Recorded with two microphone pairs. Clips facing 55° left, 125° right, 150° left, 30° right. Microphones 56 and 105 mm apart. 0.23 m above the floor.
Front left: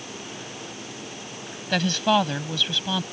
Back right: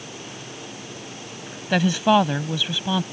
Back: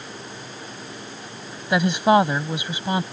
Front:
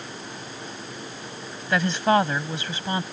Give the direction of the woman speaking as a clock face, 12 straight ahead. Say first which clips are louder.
Back right 4 dB, back 3 dB; 6 o'clock.